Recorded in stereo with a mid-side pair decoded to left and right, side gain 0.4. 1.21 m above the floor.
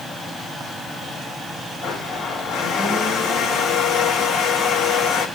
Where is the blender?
70° left, 4 m.